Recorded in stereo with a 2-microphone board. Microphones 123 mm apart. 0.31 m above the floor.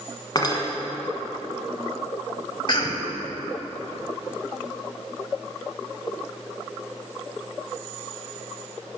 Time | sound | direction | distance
0.3 | cutlery clinking | 35° left (ahead or behind) | 1.5 m
2.7 | a cough | 40° left (ahead or behind) | 1.4 m